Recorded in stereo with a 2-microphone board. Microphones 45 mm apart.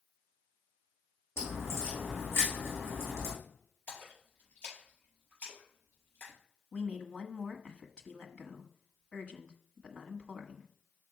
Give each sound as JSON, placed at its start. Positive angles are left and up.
{"t": 1.4, "sound": "a crack", "side_deg": 65, "distance_m": 4.5}
{"t": 3.9, "sound": "a splash", "side_deg": 40, "distance_m": 4.5}
{"t": 6.7, "sound": "a woman speaking", "side_deg": 20, "distance_m": 1.3}